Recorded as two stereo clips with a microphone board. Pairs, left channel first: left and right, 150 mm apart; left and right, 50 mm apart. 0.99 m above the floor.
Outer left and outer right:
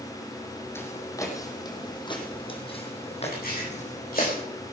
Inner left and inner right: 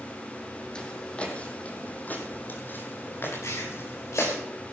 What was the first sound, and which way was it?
Footsteps, 15° left (ahead or behind).